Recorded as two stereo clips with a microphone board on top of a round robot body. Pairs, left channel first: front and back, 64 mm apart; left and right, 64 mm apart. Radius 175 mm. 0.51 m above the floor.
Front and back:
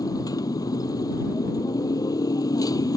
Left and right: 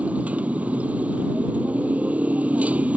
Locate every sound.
0.0 s a motorcycle: 20° right